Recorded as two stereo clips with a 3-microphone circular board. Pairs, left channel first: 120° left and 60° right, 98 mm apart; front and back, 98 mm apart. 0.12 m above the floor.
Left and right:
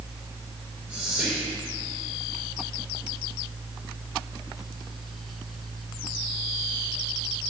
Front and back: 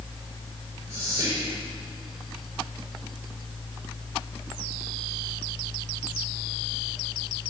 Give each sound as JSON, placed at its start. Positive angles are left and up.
{"t": 0.9, "sound": "whispering", "azimuth_deg": -130, "distance_m": 1.7}